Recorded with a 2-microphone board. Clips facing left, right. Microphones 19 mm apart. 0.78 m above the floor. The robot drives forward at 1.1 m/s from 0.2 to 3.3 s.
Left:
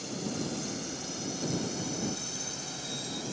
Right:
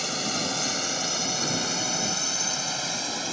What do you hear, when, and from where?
0.0 s a drone: 50° right (ahead or behind); by 3.3 s 40° right (ahead or behind)